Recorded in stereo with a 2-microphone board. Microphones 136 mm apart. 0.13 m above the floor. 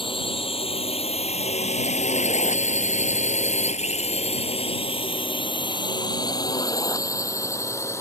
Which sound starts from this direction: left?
A drone, at 0.0 s.